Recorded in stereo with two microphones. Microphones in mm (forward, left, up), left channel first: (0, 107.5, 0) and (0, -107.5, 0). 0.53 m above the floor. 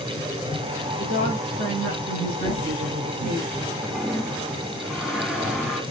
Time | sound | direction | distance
1.0 | a woman speaking | 50° right (ahead or behind) | 5.5 m
2.4 | a thud | 65° right (ahead or behind) | 4 m
3.8 | a toilet flushing | 5° right (ahead or behind) | 4.5 m